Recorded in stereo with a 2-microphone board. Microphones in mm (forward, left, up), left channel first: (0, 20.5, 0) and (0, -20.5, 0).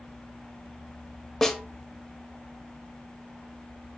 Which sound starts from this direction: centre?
A snare drum, at 1.4 s.